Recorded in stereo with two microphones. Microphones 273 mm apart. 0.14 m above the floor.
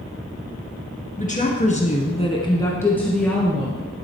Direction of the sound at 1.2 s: 30° left (ahead or behind).